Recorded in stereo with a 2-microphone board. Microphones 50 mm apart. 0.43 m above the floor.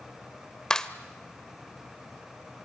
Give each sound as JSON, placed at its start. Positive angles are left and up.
{"t": 0.7, "sound": "a clap", "side_deg": 15, "distance_m": 1.1}